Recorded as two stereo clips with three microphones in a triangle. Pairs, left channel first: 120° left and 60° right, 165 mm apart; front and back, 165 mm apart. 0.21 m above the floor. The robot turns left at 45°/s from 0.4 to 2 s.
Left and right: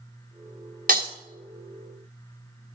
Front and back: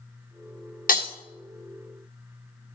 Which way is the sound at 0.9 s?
30° right.